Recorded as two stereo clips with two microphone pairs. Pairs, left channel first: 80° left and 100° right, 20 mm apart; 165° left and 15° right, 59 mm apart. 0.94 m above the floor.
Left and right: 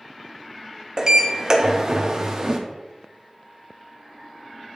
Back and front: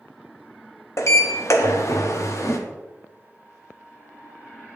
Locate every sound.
1.0 s a sliding door: 160° right, 0.8 m